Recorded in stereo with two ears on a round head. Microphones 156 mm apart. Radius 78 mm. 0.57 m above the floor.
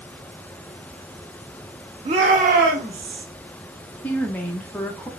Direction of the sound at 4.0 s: 10° left (ahead or behind).